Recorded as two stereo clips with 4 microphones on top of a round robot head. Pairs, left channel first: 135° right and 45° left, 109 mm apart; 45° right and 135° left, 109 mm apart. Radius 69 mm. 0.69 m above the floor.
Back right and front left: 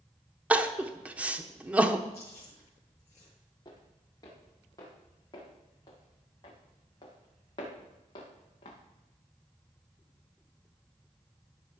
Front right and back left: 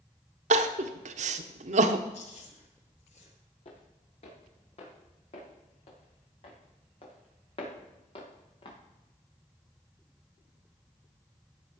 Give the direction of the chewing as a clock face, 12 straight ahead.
2 o'clock.